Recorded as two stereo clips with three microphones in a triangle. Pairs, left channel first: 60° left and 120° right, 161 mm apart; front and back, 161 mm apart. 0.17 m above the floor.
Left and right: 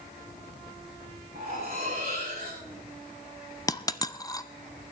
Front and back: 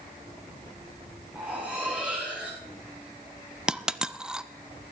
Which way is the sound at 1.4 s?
100° right.